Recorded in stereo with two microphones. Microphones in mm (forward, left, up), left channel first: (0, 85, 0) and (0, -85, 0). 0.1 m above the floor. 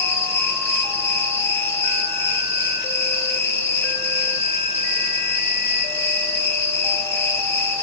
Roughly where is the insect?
Centre.